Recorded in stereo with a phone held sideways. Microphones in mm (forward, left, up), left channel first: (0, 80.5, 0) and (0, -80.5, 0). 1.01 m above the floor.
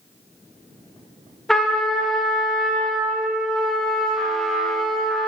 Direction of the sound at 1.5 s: 5° left (ahead or behind).